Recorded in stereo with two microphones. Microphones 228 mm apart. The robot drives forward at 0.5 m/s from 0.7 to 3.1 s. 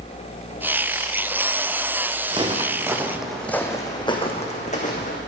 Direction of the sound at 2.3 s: 20° right (ahead or behind).